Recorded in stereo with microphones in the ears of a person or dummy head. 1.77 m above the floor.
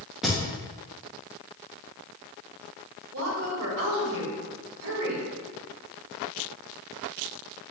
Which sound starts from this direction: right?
A woman speaking, at 3.1 s.